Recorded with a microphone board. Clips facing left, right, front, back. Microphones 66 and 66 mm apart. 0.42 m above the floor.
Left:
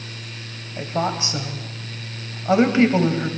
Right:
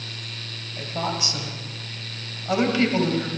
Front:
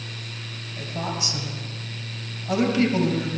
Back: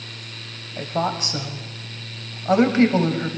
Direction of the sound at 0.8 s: 145° left.